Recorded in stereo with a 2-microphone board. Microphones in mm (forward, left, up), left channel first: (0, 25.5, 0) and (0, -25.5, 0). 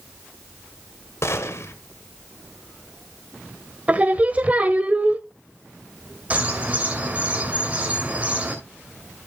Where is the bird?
25° right (ahead or behind), 2.5 m.